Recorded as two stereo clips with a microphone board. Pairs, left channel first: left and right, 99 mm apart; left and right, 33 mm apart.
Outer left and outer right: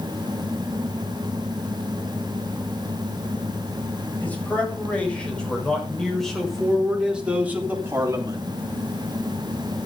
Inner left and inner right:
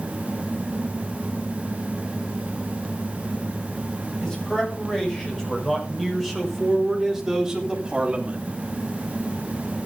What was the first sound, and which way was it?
A man speaking, 15° left (ahead or behind).